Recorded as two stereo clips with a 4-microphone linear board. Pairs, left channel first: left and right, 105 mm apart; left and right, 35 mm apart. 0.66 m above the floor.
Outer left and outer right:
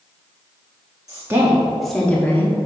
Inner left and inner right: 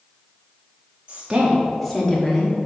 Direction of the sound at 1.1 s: 35° right (ahead or behind).